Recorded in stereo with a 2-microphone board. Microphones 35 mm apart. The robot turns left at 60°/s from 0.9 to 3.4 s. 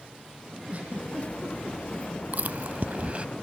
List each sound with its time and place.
0.7 s a giggle: 45° right (ahead or behind), 5.5 m; by 1.8 s 85° right, 5.5 m
2.3 s chewing: 60° right (ahead or behind), 0.5 m; by 3.2 s 35° right (ahead or behind), 0.5 m